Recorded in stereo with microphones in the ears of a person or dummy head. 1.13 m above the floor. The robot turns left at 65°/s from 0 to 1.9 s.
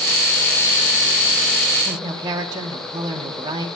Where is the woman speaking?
25° right (ahead or behind), 1.4 m.